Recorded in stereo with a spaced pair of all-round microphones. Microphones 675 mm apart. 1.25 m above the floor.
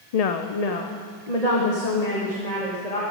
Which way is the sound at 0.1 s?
65° left (ahead or behind).